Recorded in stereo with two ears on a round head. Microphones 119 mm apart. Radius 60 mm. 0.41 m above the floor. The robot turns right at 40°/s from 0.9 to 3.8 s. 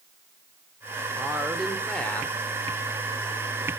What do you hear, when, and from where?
1.2 s a woman speaking: 10° right (ahead or behind), 1.0 m; by 2.4 s 15° left (ahead or behind), 1.0 m